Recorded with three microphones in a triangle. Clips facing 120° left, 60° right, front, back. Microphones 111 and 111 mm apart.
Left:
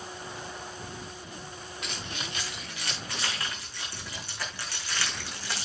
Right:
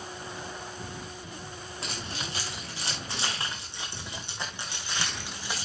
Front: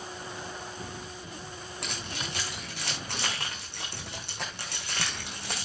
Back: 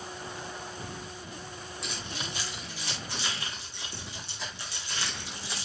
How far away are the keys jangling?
About 6.5 m.